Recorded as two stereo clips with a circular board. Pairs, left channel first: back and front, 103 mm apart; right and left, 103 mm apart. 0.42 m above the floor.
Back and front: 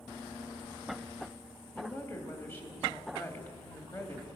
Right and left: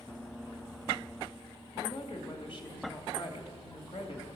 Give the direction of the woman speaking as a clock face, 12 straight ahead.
4 o'clock.